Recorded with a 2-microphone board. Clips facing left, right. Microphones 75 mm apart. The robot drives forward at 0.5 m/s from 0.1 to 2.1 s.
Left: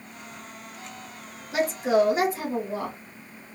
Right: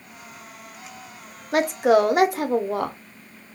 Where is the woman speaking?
55° right (ahead or behind), 0.5 m; by 3.0 s 60° right (ahead or behind), 0.5 m.